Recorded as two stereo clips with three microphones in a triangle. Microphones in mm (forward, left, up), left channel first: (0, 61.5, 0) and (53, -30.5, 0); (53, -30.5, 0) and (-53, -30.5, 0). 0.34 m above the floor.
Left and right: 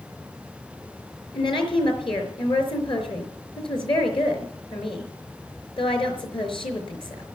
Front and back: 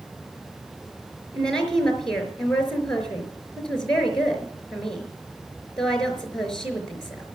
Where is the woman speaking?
85° left, 4.5 m.